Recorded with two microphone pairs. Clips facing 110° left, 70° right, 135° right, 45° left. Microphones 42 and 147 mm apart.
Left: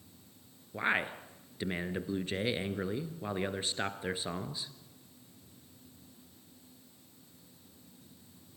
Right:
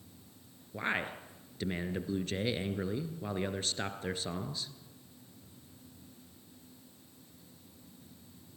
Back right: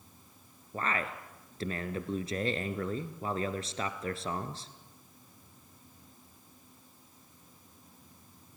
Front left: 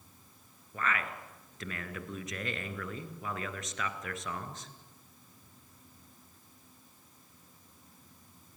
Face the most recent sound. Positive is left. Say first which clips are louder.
# left 3 dB, back right 1 dB
turn(degrees=180)